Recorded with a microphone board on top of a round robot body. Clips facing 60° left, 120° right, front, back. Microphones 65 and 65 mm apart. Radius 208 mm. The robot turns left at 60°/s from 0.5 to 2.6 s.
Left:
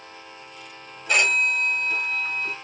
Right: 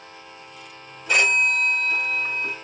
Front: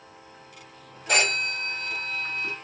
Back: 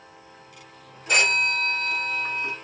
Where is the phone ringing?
30° right, 1.6 m; by 2.5 s 115° right, 1.6 m.